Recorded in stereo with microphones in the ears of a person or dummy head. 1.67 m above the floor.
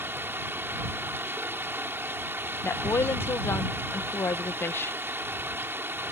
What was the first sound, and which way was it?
Running water, 10° right (ahead or behind).